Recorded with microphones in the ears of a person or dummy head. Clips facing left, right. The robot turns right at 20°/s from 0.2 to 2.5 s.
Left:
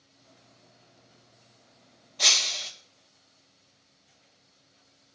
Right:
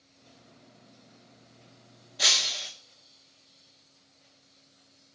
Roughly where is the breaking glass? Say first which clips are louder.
Even; centre.